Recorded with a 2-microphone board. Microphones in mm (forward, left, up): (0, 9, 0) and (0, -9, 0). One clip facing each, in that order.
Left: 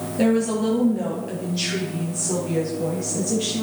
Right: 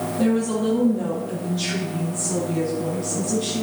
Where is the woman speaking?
75° left (ahead or behind), 5 m; by 3.6 s 70° left (ahead or behind), 7 m.